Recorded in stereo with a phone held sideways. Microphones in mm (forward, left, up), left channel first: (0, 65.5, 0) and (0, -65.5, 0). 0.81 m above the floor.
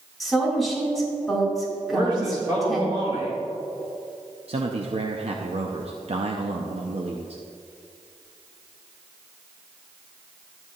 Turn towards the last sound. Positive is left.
turn(degrees=-50)  # may be behind; listen again after turning